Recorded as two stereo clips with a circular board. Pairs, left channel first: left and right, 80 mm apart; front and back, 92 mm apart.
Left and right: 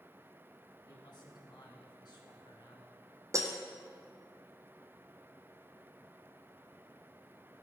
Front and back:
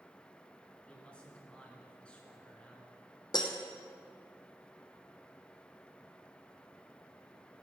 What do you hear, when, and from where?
0.8 s a man speaking: 75° left, 3 m
3.3 s breaking glass: 40° right, 1.5 m